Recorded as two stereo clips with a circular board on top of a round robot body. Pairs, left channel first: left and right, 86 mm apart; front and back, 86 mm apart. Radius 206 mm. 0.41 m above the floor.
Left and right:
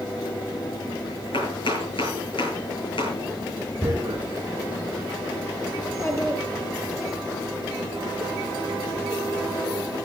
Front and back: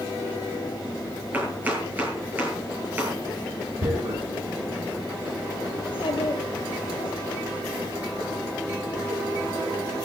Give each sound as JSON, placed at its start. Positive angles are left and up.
{"t": 1.3, "sound": "chopping", "azimuth_deg": 110, "distance_m": 9.0}
{"t": 3.8, "sound": "tearing paper", "azimuth_deg": -165, "distance_m": 7.0}
{"t": 5.8, "sound": "a child speaking", "azimuth_deg": 30, "distance_m": 4.5}